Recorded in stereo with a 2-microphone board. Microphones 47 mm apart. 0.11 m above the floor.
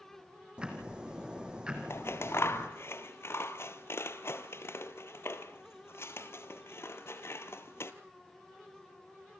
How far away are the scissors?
About 1.2 m.